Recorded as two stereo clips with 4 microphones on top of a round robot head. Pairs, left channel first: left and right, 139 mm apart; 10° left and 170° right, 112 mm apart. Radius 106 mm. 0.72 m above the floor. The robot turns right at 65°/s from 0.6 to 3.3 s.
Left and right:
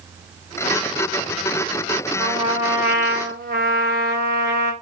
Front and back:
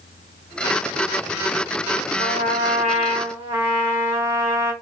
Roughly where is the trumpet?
Behind.